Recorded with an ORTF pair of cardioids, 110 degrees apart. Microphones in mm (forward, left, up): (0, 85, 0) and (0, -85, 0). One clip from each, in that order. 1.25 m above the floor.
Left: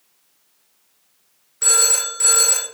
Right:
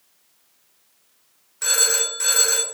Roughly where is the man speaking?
No man speaking in this recording.